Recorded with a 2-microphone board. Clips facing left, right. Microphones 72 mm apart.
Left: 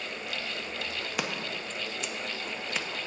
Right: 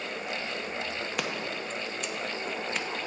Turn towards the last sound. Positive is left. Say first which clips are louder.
# even
turn(degrees=5)  # may be behind; listen again after turning